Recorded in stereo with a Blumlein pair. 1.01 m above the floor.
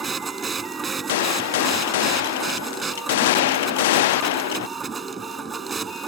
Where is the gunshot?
55° left.